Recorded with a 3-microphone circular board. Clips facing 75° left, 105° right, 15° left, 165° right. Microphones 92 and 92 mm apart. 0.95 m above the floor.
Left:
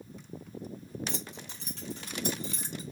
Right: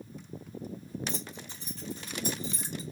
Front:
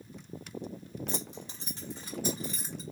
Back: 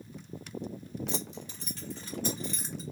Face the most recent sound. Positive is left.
turn(degrees=105)